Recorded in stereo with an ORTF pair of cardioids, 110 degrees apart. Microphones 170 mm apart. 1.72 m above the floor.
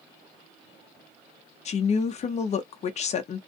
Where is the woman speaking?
40° left, 0.7 m.